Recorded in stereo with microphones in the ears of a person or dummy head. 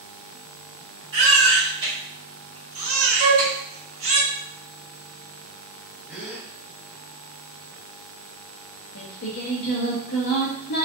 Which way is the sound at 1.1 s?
25° right (ahead or behind).